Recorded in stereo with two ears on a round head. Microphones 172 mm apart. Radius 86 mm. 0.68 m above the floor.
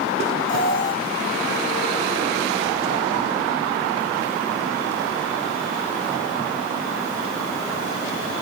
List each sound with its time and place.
0.5 s an alarm: 25° left (ahead or behind), 5 m